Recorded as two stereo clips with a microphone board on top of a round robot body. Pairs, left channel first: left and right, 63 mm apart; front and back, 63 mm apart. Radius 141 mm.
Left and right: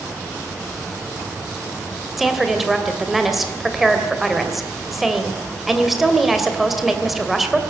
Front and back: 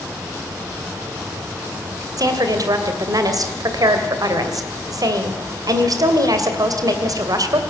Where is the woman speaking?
Straight behind, 2.5 m.